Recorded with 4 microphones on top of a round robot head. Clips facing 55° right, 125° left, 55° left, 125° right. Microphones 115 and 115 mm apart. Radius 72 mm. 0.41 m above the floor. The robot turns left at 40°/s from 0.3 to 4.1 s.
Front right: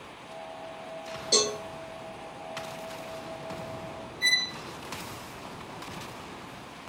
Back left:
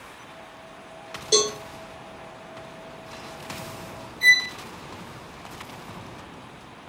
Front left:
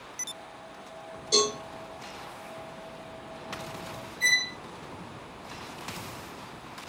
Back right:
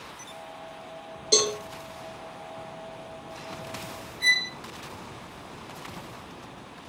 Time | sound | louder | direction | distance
1.3 | a cowbell | back left 5 dB, back right 1 dB | 155° right | 2.5 m
4.2 | a violin | back left 12 dB, back right 1 dB | 100° left | 3 m